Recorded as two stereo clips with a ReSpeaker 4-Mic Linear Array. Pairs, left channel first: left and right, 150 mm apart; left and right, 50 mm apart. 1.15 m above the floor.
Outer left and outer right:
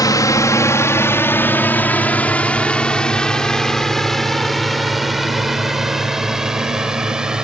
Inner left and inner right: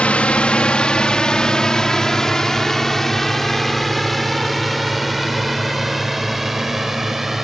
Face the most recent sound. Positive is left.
turn(degrees=-5)  # may be behind; listen again after turning